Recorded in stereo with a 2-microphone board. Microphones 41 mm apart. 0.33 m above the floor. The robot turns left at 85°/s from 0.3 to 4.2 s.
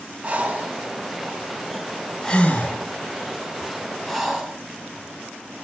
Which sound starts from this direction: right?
Breathing, at 0.2 s.